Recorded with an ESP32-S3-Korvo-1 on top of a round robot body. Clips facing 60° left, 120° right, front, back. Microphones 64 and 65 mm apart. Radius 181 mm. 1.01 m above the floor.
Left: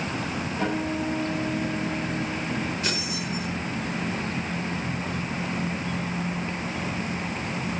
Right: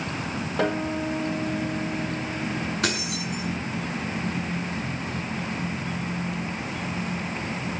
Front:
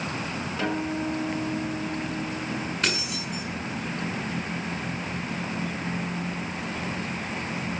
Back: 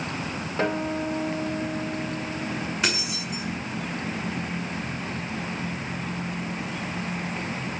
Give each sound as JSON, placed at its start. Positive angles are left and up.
{"t": 0.6, "sound": "a guitar", "azimuth_deg": -125, "distance_m": 7.0}
{"t": 2.8, "sound": "keys jangling", "azimuth_deg": -100, "distance_m": 9.0}